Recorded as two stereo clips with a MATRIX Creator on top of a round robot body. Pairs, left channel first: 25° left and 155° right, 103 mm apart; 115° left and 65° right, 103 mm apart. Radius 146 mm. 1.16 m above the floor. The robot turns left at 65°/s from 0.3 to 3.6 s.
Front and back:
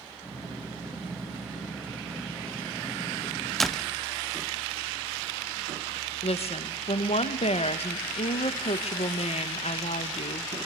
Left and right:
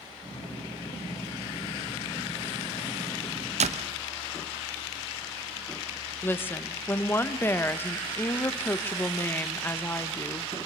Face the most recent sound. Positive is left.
turn(degrees=40)